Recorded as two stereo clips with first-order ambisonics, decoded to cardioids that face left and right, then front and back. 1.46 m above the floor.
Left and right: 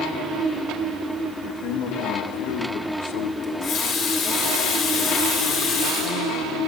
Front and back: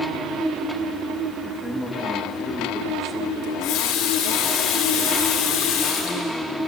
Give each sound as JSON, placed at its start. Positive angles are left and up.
{"t": 1.4, "sound": "a man speaking", "azimuth_deg": 95, "distance_m": 3.0}
{"t": 3.4, "sound": "a running tap", "azimuth_deg": 40, "distance_m": 3.5}